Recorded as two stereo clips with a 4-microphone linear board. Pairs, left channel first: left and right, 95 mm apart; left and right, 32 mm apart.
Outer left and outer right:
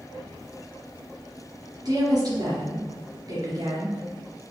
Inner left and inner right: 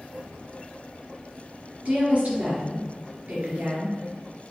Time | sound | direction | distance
1.9 | a woman speaking | 45° right (ahead or behind) | 3 m